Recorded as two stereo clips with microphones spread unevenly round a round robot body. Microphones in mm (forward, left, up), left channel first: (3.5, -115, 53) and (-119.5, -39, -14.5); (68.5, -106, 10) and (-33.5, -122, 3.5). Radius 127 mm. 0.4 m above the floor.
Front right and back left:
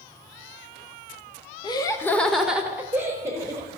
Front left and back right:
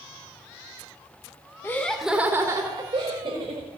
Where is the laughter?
50° left, 0.8 m; by 3.8 s 165° right, 1.7 m.